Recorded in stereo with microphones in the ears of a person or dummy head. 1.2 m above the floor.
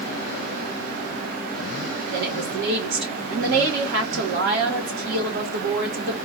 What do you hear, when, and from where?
2.1 s a woman speaking: 70° right (ahead or behind), 1.9 m